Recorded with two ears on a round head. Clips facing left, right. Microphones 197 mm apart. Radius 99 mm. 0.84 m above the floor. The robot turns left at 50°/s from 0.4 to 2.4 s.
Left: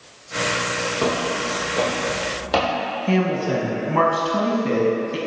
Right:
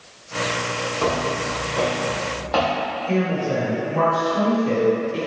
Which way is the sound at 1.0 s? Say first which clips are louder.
Even; 30° left (ahead or behind).